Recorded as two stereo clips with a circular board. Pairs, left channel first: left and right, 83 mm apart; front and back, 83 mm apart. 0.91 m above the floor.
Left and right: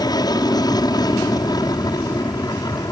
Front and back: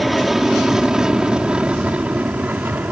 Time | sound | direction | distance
0.0 | an aircraft | 90° left | ?